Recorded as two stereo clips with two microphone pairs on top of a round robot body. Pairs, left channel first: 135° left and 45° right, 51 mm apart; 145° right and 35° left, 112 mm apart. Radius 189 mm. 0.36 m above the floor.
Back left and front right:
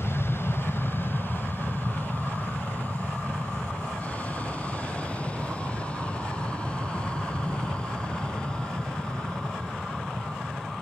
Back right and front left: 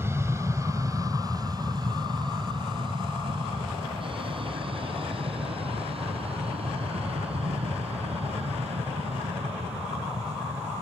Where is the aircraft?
105° left; by 10.8 s 65° left.